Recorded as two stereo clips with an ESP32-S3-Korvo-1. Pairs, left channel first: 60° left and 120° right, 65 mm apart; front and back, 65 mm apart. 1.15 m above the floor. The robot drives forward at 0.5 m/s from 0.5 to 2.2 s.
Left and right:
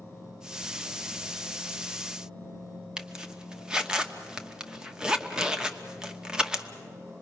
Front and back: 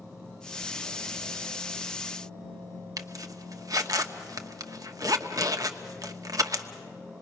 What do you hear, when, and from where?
3.0 s a zipper: 165° left, 1.1 m